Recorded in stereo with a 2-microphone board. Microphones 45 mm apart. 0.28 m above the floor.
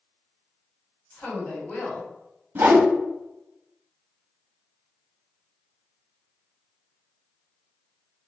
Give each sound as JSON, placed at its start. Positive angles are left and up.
{"t": 1.1, "sound": "a woman speaking", "side_deg": 45, "distance_m": 1.7}
{"t": 2.5, "sound": "a whoosh", "side_deg": -50, "distance_m": 0.8}